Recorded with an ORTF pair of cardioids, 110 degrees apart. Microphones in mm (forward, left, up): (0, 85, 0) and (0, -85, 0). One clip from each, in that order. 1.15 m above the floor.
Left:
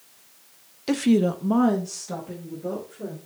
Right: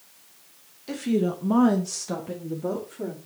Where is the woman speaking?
55° left, 0.9 m; by 3.2 s 45° right, 3 m.